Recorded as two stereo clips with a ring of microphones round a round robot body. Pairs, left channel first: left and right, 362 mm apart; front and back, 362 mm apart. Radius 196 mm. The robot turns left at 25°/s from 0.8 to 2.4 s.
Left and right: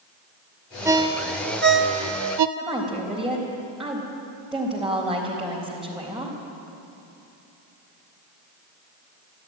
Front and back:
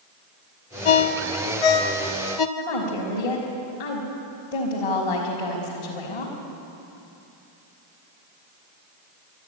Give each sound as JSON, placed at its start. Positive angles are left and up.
{"t": 0.8, "sound": "a ringtone", "azimuth_deg": -5, "distance_m": 1.1}
{"t": 2.6, "sound": "a woman speaking", "azimuth_deg": 0, "distance_m": 4.0}